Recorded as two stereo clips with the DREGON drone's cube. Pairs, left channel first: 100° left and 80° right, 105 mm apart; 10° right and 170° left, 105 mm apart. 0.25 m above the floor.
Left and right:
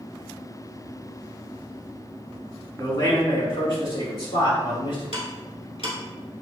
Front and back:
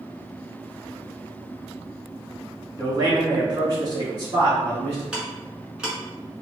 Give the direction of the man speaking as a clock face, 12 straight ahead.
8 o'clock.